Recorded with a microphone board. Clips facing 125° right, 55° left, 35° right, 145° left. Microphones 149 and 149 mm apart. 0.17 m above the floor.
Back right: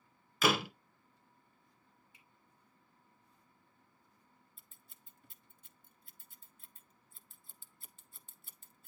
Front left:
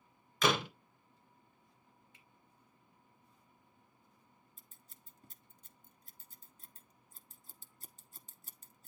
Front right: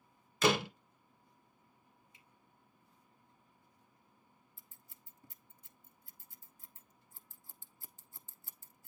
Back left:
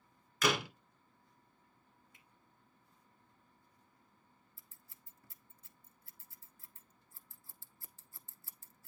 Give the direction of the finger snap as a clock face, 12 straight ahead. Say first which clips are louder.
Front left 1 dB, even; 7 o'clock.